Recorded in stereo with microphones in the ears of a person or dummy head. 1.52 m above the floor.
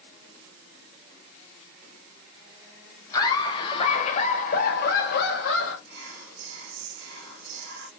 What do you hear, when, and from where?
3.1 s laughter: 25° left (ahead or behind), 1.6 m; by 5.8 s 75° left (ahead or behind), 1.5 m
5.9 s whispering: 60° right (ahead or behind), 2 m